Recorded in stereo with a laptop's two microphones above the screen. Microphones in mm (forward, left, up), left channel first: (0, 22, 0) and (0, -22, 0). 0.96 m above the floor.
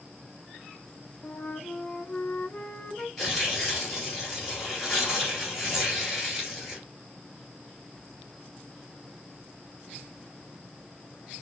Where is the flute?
30° left (ahead or behind), 0.6 m.